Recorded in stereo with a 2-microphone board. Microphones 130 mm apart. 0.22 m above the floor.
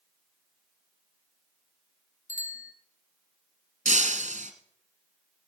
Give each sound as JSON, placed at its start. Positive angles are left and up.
{"t": 2.3, "sound": "a bicycle bell", "side_deg": 70, "distance_m": 3.0}
{"t": 3.9, "sound": "breaking glass", "side_deg": -70, "distance_m": 1.8}